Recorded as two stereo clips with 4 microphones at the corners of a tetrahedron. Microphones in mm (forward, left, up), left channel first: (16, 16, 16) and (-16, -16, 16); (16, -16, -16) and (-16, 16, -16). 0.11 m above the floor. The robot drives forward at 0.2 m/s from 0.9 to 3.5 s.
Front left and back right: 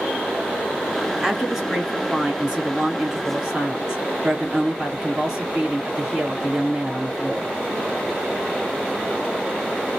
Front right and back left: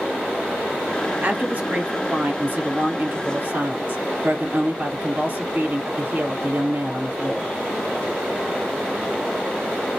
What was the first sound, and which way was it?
A woman speaking, 140° left.